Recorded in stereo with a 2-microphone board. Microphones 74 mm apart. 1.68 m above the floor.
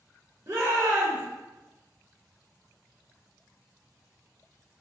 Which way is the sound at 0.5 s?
50° right (ahead or behind).